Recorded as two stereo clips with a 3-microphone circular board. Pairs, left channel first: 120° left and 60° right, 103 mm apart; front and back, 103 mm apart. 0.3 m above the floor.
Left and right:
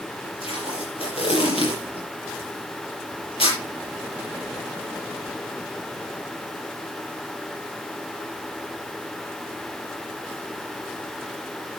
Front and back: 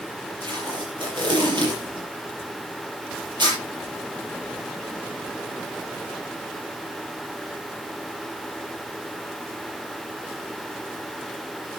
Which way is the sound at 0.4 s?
145° left.